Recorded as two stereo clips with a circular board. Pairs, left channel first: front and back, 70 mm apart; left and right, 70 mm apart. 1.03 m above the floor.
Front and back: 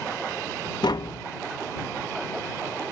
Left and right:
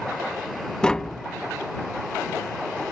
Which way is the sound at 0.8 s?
15° left.